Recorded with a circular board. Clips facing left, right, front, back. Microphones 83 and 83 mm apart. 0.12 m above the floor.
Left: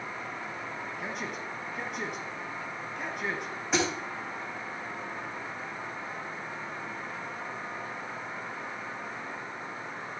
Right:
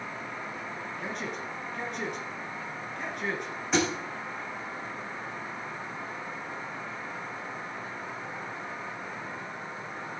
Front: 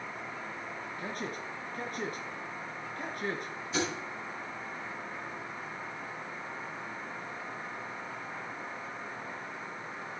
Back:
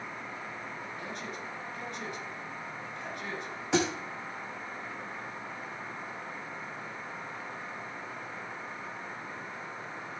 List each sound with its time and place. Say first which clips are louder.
1.0 s a man speaking: right 2 dB, front 4 dB; 5° left, 1.9 m
3.7 s a thud: right 2 dB, back 5 dB; straight behind, 4 m